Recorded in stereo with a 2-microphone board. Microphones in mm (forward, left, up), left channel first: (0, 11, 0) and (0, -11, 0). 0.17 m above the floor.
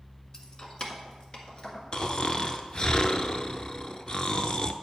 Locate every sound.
0.3 s keys jangling: 35° left (ahead or behind), 1.1 m; by 2.9 s 50° left (ahead or behind), 2.5 m
1.9 s snoring: 40° left (ahead or behind), 0.6 m